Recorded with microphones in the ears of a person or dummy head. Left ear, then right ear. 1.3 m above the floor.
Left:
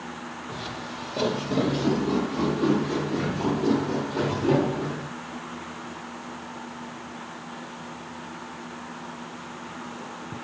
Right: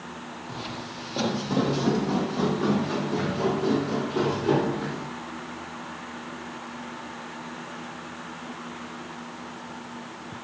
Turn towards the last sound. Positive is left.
turn(degrees=-70)  # may be behind; listen again after turning